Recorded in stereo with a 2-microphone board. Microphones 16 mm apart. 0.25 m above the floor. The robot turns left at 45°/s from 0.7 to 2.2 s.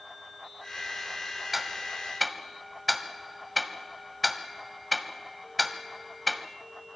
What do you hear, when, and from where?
1.5 s ticking: 15° right (ahead or behind), 1.6 m; by 6.4 s centre (ahead or behind), 1.6 m